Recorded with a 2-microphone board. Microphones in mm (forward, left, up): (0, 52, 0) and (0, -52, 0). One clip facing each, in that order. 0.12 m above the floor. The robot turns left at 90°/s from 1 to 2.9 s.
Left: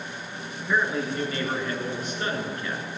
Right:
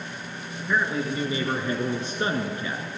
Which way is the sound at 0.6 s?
Straight ahead.